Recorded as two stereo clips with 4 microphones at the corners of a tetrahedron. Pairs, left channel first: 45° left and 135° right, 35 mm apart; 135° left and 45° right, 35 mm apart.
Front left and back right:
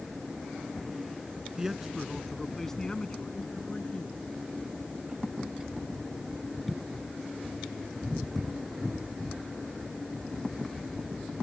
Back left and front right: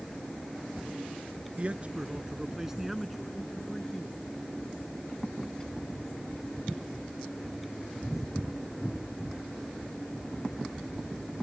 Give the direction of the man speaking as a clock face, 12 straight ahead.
2 o'clock.